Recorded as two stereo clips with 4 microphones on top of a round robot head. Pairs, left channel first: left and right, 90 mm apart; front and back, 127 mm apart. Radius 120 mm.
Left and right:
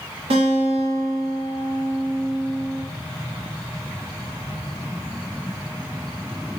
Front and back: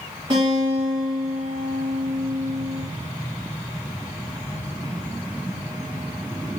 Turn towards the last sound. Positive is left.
turn(degrees=-110)